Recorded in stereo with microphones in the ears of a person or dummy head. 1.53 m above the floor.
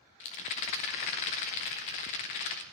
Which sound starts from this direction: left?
A rattle, at 0.2 s.